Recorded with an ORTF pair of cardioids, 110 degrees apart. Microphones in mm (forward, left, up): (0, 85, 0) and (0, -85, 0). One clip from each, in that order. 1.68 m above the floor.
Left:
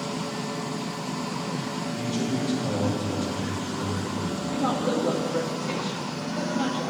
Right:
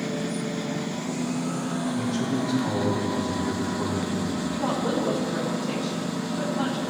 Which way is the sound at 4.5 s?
50° left.